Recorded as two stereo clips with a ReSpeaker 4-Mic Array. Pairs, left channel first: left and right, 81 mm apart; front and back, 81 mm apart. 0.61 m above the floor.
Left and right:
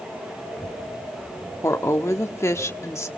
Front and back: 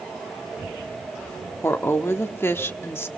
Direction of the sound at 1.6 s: 50° left.